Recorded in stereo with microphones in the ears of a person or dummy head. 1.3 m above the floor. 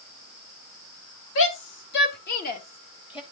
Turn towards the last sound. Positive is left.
turn(degrees=25)  # may be behind; listen again after turning